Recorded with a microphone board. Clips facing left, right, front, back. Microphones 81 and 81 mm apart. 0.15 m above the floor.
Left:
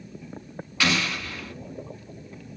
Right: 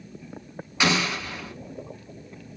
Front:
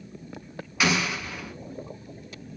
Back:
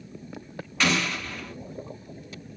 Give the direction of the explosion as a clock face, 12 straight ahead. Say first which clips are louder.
Right 2 dB, even; 2 o'clock.